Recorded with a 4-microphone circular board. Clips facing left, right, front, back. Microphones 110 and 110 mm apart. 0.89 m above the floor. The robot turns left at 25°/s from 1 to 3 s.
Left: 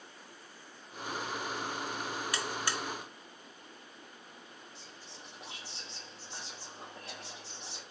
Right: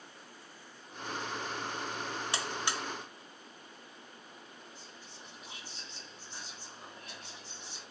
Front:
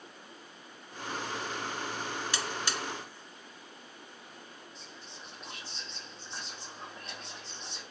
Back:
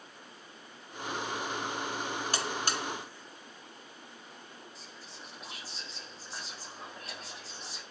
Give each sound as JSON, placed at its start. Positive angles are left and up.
{"t": 2.3, "sound": "a buzzer", "azimuth_deg": -145, "distance_m": 0.8}
{"t": 4.8, "sound": "whispering", "azimuth_deg": 95, "distance_m": 2.0}